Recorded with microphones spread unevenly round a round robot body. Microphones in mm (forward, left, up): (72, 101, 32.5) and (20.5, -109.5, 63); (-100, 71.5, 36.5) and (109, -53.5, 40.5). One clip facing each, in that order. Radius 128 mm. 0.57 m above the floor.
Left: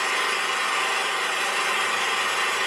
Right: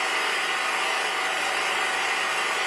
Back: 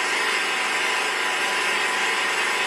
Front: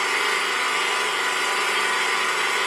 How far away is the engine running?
About 1.6 m.